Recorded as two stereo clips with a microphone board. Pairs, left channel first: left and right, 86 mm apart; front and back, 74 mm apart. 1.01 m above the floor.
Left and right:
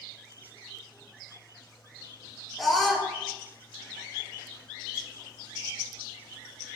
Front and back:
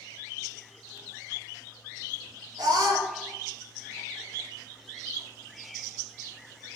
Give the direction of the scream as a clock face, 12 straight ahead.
6 o'clock.